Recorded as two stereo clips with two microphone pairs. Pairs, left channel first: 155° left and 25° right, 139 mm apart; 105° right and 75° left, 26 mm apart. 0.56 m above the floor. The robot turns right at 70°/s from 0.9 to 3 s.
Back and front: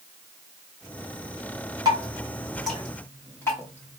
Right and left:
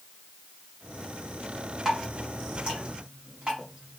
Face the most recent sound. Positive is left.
turn(degrees=95)